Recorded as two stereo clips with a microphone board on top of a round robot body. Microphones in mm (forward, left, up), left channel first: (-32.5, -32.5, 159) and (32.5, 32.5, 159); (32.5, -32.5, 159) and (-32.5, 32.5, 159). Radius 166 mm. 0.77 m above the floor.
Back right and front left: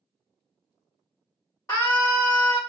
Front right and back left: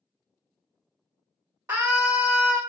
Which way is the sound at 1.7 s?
Straight behind.